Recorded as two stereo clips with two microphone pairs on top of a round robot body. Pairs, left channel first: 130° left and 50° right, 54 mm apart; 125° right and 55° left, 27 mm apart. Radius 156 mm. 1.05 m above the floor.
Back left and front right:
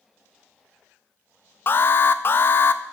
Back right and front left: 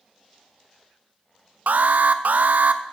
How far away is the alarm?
About 0.5 m.